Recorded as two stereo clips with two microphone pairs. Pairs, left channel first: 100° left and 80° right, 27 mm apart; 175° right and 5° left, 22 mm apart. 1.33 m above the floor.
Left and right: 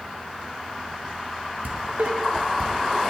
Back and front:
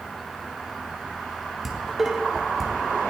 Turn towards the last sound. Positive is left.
turn(degrees=-75)